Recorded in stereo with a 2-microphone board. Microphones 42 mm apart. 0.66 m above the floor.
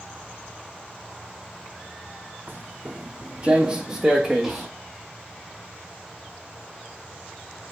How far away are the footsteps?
About 1.5 m.